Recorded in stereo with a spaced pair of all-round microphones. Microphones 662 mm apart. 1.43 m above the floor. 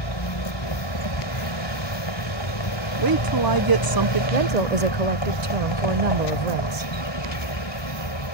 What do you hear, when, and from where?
0.0 s a vehicle: 40° left (ahead or behind)
3.0 s a woman speaking: 35° right (ahead or behind)
4.3 s a woman speaking: 75° right (ahead or behind)